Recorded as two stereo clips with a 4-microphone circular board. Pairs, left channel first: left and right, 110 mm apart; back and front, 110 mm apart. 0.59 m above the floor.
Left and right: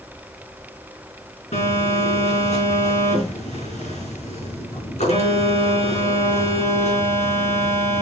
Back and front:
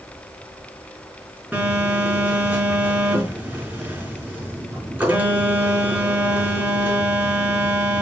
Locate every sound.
1.5 s a phone buzzing: 75° left, 4.5 m